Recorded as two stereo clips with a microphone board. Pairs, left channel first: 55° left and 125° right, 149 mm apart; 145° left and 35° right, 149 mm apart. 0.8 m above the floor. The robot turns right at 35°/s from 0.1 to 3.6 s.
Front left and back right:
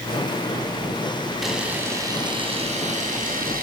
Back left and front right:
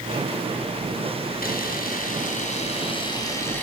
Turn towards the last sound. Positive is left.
turn(degrees=-135)